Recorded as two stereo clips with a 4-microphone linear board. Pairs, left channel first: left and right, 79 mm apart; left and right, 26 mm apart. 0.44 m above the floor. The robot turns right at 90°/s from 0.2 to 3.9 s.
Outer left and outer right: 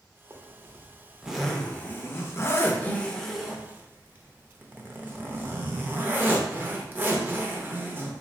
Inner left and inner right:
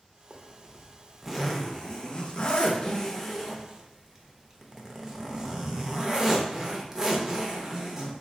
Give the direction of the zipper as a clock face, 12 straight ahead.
3 o'clock.